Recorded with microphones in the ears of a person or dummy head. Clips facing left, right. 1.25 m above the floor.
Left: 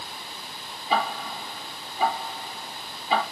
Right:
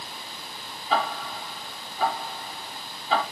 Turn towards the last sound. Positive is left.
turn(degrees=10)  # may be behind; listen again after turning